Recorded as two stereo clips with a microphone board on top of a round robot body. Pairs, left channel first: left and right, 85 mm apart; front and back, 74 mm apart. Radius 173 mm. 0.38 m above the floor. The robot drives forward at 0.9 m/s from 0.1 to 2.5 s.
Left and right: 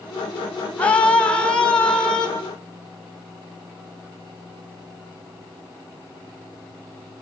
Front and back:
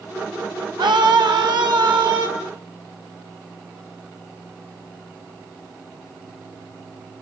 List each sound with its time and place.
0.8 s a scream: 165° left, 4 m; by 2.3 s 170° left, 5 m